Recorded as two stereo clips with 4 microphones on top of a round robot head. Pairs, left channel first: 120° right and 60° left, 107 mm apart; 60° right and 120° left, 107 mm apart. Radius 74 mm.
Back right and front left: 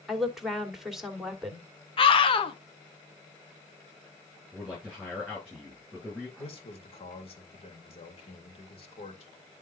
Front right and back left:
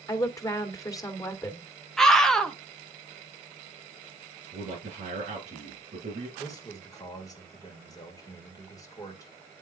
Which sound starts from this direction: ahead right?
A woman speaking, at 0.1 s.